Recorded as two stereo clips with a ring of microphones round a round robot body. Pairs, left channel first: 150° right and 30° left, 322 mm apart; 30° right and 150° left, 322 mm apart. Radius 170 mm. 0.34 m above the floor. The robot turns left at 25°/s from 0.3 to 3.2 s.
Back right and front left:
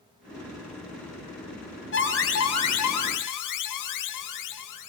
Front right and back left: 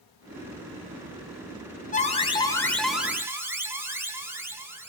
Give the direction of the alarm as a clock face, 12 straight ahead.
3 o'clock.